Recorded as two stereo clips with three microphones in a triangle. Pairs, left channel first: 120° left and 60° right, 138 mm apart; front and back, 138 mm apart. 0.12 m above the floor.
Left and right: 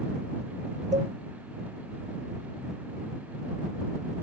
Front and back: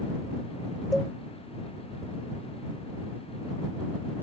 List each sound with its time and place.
0.9 s a cowbell: 85° right